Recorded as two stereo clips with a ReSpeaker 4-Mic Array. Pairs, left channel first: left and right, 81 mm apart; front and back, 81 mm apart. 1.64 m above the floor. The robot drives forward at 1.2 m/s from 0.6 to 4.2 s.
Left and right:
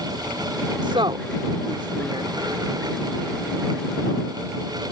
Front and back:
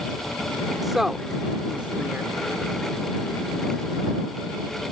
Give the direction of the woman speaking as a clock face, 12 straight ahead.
3 o'clock.